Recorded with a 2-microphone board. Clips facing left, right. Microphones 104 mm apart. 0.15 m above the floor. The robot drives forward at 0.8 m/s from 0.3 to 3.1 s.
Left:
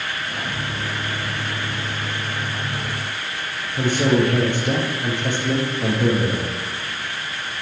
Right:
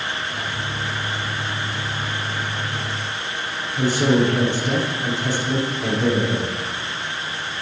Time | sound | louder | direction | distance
3.8 | a man speaking | even | 55° left (ahead or behind) | 4 m